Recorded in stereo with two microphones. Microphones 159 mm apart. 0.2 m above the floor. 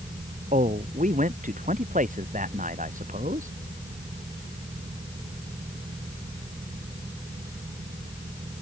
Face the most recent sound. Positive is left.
turn(degrees=-55)  # may be behind; listen again after turning